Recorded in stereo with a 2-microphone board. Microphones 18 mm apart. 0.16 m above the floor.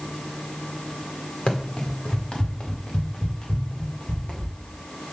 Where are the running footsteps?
80° left, 2.5 m; by 4.5 s 50° left (ahead or behind), 3 m.